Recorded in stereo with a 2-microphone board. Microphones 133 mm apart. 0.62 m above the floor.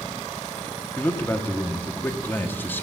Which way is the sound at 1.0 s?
15° left (ahead or behind).